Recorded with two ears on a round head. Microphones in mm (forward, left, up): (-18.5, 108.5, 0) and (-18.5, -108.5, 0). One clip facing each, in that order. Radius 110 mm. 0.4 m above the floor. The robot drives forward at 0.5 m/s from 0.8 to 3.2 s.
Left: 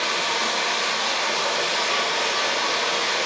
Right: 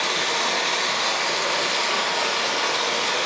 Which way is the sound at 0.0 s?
40° right (ahead or behind).